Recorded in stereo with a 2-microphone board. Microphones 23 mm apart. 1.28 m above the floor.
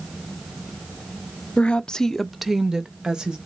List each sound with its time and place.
1.6 s a woman speaking: 60° left (ahead or behind), 0.6 m; by 3.4 s 40° right (ahead or behind), 1.2 m